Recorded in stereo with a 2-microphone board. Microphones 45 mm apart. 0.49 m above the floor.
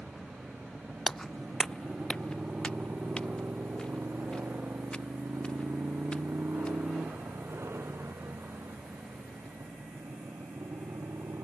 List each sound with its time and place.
0.0 s a motorcycle: 15° right (ahead or behind); by 11.4 s 85° right
1.1 s footsteps: 5° left (ahead or behind); by 7.1 s 20° left (ahead or behind)